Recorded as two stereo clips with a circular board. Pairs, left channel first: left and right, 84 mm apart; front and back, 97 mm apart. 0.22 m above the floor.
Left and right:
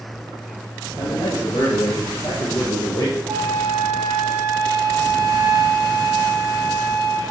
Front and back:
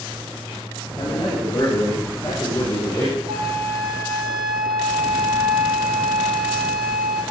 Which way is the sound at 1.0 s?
45° left.